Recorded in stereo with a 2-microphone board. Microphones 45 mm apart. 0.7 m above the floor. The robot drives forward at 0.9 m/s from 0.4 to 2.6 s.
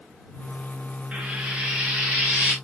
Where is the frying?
25° right (ahead or behind), 1.5 m; by 2.5 s 15° right (ahead or behind), 2.5 m.